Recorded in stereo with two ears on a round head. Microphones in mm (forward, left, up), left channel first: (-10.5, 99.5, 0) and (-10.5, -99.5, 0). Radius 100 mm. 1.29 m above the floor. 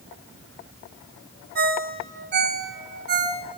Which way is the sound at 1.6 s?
50° right (ahead or behind).